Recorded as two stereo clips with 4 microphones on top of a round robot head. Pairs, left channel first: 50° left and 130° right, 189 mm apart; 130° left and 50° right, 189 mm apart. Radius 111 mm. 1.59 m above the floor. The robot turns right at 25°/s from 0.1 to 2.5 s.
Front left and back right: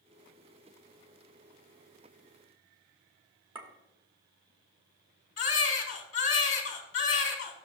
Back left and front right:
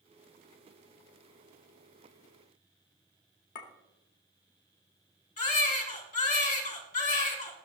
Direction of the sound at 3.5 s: 165° left.